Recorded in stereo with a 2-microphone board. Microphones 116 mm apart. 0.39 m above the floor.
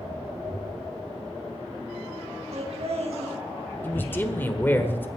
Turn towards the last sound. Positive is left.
turn(degrees=15)  # may be behind; listen again after turning